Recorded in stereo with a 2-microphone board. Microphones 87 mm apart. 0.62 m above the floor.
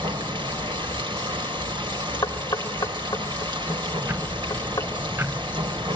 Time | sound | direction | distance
0.0 | running water | 70° right (ahead or behind) | 2.5 m
2.2 | knocking | 45° left (ahead or behind) | 2 m
4.0 | ticking | 25° right (ahead or behind) | 0.5 m